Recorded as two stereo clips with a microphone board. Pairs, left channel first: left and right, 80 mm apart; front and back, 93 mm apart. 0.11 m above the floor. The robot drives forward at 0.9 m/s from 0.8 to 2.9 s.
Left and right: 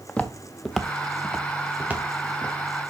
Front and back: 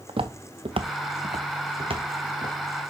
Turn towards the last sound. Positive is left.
turn(degrees=-160)